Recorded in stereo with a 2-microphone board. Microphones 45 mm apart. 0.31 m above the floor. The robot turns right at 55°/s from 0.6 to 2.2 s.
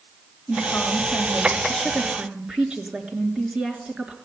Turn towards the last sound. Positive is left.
turn(degrees=-155)